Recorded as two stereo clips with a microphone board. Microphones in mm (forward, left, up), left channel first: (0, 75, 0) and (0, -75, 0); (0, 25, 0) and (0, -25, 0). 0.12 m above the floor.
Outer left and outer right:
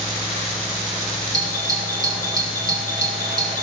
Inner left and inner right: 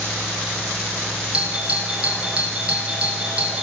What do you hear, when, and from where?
1.3 s a doorbell: 25° right (ahead or behind), 6 m